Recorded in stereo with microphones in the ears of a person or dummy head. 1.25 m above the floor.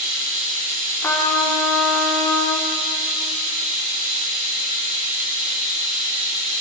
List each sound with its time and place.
0.0 s running water: 40° right (ahead or behind), 1.3 m
1.0 s a trumpet: 15° left (ahead or behind), 0.8 m